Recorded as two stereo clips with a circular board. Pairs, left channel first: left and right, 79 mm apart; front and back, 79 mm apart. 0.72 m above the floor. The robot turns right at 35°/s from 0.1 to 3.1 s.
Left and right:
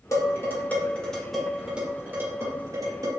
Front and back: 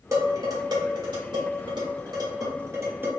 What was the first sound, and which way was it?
Dishes clattering, 135° left.